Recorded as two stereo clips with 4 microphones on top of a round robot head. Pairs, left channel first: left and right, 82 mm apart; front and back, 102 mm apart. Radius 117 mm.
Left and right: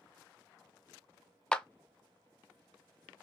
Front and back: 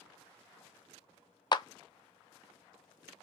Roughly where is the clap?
Ahead.